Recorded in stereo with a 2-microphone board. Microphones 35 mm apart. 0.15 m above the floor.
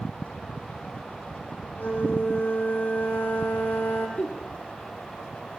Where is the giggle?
40° left (ahead or behind), 3 m.